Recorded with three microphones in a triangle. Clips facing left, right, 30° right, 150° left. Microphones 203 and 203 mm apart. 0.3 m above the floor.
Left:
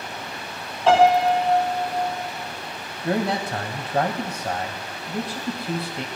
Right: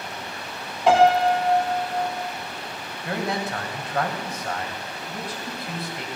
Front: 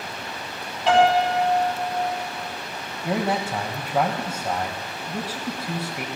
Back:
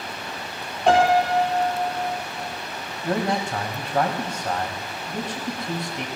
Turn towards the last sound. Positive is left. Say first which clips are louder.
# left 4 dB, even
turn(degrees=50)